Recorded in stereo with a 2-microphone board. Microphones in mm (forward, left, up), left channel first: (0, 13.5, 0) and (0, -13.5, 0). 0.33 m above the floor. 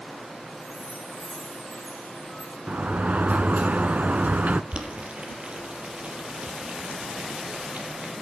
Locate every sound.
0.5 s a chime: 75° left (ahead or behind), 3.5 m
2.7 s a sliding door: 65° right (ahead or behind), 0.7 m
4.7 s boiling: 50° right (ahead or behind), 3.5 m